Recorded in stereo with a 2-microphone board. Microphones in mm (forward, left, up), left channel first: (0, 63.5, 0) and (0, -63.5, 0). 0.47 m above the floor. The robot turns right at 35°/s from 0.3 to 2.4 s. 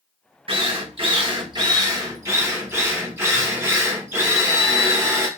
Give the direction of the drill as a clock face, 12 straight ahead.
3 o'clock.